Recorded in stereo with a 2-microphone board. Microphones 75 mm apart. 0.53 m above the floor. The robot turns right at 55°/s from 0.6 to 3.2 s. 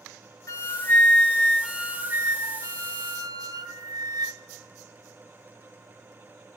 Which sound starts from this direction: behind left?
A flute, at 0.5 s.